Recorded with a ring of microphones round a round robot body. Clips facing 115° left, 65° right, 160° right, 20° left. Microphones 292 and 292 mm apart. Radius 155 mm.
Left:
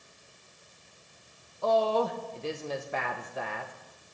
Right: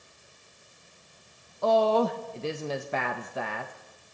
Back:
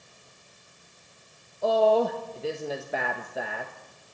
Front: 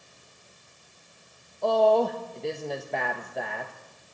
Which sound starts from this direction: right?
A woman speaking, at 1.6 s.